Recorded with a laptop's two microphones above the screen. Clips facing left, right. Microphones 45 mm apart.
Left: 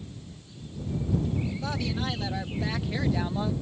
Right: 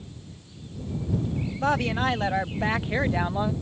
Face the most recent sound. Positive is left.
turn(degrees=-25)  # may be behind; listen again after turning